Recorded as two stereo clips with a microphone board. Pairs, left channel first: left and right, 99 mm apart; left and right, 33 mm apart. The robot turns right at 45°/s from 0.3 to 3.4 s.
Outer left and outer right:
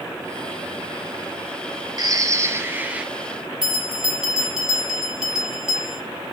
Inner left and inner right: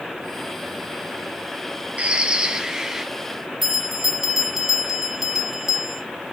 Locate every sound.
2.0 s a bird: 65° right, 0.9 m; by 3.0 s 15° right, 0.9 m
3.6 s a bell: 5° right (ahead or behind), 1.7 m